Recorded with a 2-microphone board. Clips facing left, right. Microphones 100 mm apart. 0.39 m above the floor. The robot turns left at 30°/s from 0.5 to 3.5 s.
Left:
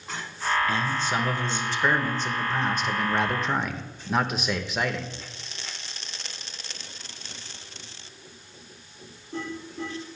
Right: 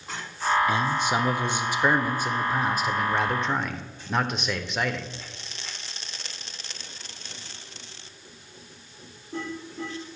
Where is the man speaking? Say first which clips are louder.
Right 2 dB; 20° right (ahead or behind), 0.8 m; by 5.1 s centre (ahead or behind), 0.8 m.